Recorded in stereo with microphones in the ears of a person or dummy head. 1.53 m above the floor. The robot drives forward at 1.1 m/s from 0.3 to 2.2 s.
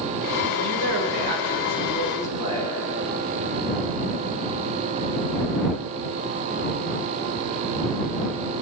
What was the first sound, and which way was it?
A woman speaking, 80° right.